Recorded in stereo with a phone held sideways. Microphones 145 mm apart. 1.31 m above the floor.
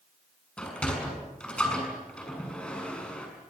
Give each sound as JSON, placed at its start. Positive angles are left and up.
{"t": 0.6, "sound": "a sliding door", "side_deg": 10, "distance_m": 6.5}